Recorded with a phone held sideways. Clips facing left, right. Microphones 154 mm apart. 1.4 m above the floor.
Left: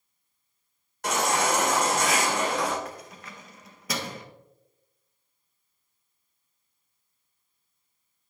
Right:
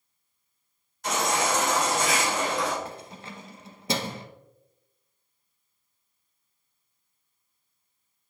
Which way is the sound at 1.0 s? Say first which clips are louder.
Left 1 dB; 70° left (ahead or behind).